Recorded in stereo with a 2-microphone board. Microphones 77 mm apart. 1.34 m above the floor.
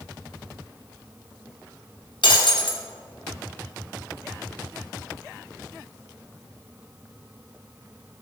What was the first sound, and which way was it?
Breaking glass, 75° left (ahead or behind).